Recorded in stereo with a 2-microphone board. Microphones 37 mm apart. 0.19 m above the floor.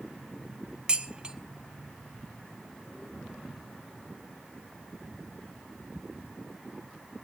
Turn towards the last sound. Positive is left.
turn(degrees=-25)  # may be behind; listen again after turning